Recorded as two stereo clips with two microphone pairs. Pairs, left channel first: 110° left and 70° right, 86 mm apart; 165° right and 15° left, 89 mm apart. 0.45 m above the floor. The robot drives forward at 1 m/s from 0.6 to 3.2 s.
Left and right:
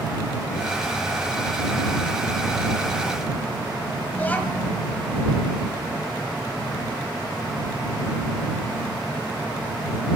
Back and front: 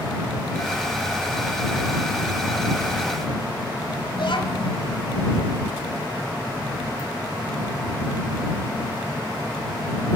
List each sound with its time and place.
4.1 s a child speaking: straight behind, 1.6 m